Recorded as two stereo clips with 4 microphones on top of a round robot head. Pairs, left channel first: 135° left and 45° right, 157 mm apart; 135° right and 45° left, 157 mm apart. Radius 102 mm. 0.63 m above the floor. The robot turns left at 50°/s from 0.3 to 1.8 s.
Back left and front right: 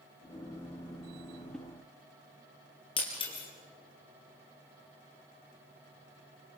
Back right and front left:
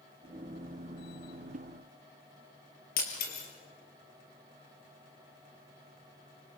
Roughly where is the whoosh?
Ahead left.